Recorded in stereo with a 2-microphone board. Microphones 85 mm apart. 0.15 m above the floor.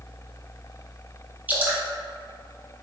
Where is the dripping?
20° right (ahead or behind), 0.8 m.